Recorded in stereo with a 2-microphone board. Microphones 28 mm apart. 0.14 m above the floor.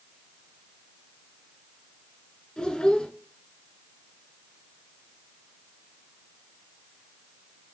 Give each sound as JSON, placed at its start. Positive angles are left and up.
{"t": 2.6, "sound": "a child speaking", "side_deg": 30, "distance_m": 1.2}